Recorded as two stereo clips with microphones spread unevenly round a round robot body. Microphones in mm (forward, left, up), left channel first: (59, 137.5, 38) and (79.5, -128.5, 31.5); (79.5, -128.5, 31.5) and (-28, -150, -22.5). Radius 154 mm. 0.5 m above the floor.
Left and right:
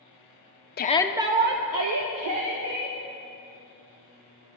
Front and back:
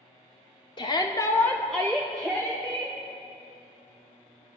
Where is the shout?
85° left, 0.7 m; by 3.0 s 95° right, 2.5 m.